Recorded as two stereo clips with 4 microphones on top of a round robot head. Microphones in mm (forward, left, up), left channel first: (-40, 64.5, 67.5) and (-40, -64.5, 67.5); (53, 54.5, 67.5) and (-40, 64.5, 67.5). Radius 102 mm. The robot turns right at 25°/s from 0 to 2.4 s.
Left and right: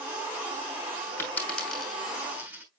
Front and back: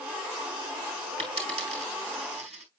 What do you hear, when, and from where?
1.2 s a dropped coin: 165° left, 5.5 m; by 2.6 s 165° right, 5.5 m